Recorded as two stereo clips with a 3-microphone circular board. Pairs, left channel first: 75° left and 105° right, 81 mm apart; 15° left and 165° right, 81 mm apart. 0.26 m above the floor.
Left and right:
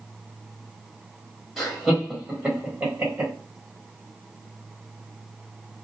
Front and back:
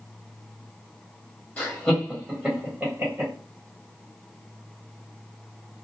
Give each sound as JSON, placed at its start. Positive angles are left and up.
{"t": 1.6, "sound": "laughter", "azimuth_deg": -10, "distance_m": 1.2}